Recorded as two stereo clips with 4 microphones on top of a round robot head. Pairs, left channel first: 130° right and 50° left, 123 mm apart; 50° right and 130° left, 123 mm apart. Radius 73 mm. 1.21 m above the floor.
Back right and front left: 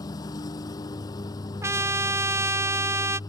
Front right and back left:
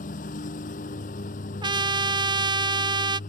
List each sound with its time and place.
0.0 s a lawn mower: 70° right
1.6 s a trumpet: 105° left